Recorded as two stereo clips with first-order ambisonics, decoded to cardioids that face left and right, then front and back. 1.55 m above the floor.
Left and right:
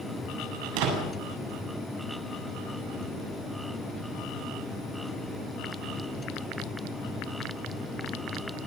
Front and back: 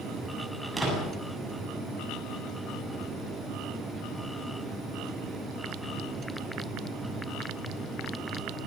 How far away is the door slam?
About 8 m.